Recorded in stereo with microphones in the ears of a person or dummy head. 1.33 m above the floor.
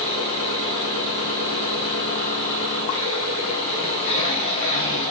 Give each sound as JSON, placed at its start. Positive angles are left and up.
{"t": 0.0, "sound": "an engine running", "side_deg": 35, "distance_m": 8.0}